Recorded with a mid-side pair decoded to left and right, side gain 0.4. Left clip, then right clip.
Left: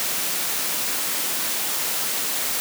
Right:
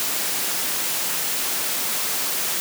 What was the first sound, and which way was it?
Only background noise.